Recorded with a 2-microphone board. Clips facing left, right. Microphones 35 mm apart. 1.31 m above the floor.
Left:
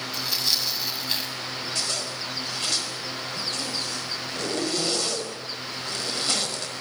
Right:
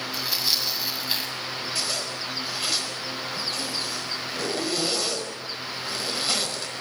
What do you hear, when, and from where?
0.1 s tearing paper: 5° right (ahead or behind), 6 m
1.8 s a zipper: 5° right (ahead or behind), 5 m